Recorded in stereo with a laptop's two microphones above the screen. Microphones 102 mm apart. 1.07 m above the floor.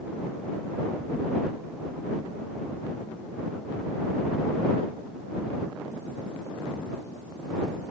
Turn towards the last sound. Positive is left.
No sound to turn to.